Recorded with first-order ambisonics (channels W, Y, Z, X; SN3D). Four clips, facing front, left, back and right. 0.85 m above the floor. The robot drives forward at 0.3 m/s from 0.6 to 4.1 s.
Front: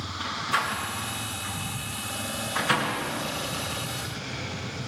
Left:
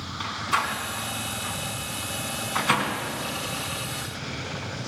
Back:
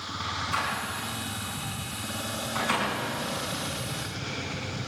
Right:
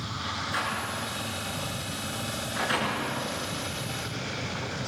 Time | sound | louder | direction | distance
0.2 | a door slam | left 5 dB, front 3 dB | 85° left | 6.5 m